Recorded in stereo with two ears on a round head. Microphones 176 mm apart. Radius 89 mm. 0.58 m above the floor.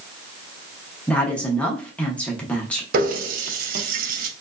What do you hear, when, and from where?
1.1 s a woman speaking: 5° left (ahead or behind), 0.6 m
2.9 s a running tap: 45° right (ahead or behind), 0.5 m